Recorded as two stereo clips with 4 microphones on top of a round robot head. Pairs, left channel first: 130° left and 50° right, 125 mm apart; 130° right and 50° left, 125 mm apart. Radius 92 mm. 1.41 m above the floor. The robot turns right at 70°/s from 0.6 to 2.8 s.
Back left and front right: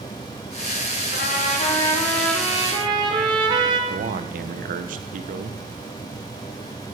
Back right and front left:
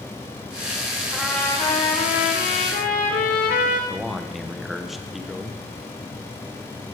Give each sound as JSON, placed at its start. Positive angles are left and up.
{"t": 1.1, "sound": "a trumpet", "azimuth_deg": 135, "distance_m": 2.0}
{"t": 3.9, "sound": "a man speaking", "azimuth_deg": -40, "distance_m": 1.1}